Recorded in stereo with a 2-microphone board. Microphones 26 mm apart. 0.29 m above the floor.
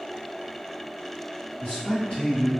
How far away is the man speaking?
About 1.9 m.